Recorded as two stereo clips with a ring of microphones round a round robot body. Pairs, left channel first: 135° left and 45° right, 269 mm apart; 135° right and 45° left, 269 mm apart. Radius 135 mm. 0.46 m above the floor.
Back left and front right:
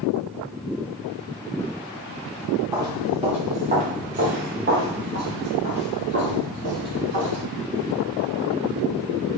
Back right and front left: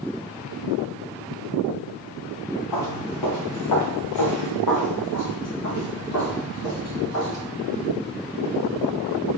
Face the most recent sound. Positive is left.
turn(degrees=-95)